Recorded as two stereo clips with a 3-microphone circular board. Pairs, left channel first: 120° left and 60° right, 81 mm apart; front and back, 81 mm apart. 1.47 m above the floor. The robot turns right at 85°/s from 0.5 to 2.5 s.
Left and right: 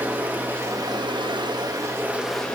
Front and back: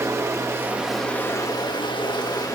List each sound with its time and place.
0.0 s running water: 125° right, 1.2 m; by 2.6 s 45° left, 1.2 m